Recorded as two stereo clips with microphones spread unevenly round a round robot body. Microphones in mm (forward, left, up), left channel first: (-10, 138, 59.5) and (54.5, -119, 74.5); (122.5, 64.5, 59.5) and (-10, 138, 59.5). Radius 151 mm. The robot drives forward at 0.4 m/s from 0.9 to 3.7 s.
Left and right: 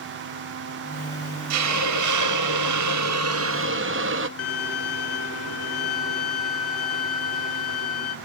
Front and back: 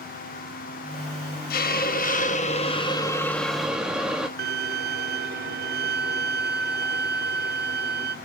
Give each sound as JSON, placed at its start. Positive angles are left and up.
{"t": 1.5, "sound": "a hiss", "azimuth_deg": -50, "distance_m": 0.8}
{"t": 4.4, "sound": "a violin", "azimuth_deg": 145, "distance_m": 1.0}